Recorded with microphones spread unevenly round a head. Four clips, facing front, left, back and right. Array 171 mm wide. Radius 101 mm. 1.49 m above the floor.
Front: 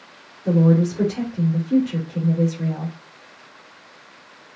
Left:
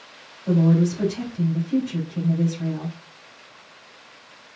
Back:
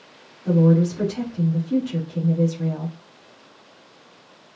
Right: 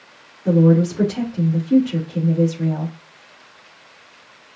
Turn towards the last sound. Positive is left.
turn(degrees=-75)